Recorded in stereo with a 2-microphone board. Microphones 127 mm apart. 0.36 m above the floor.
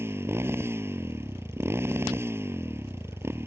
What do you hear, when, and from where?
0.0 s a motorcycle: 20° right (ahead or behind)